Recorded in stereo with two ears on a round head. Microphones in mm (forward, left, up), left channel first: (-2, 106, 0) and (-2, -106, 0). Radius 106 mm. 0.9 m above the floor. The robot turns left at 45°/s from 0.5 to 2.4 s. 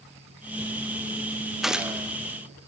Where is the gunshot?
Centre (ahead or behind), 0.7 m; by 2.1 s 10° right (ahead or behind), 0.7 m.